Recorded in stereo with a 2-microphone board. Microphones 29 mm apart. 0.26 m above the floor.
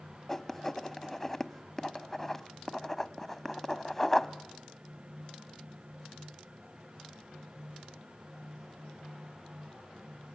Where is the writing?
15° left (ahead or behind), 0.9 m.